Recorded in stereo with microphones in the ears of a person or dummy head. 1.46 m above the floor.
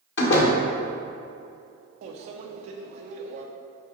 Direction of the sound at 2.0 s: 45° right (ahead or behind).